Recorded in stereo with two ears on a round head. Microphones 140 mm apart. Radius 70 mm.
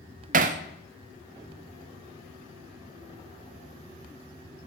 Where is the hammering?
50° right (ahead or behind), 0.6 m.